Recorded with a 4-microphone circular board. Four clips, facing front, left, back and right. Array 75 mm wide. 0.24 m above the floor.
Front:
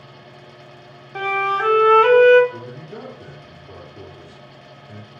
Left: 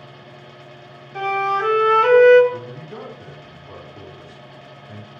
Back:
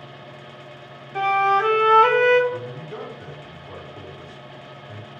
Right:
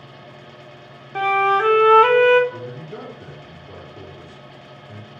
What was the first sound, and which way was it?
A flute, 80° right.